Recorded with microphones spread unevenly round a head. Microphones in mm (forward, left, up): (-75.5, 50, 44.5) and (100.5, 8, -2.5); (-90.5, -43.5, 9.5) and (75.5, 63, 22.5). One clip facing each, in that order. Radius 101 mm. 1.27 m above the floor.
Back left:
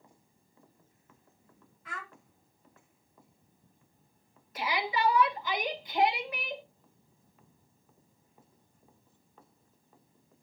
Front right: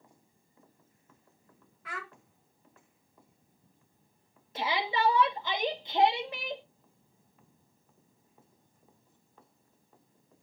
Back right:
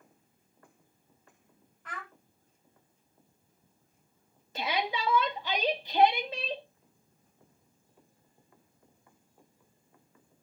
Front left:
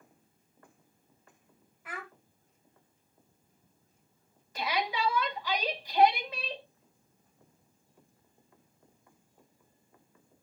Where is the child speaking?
50° right, 1.4 m.